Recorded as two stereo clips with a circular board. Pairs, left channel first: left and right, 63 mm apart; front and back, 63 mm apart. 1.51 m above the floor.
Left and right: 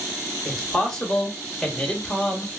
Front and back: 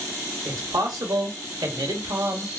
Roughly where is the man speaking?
Behind.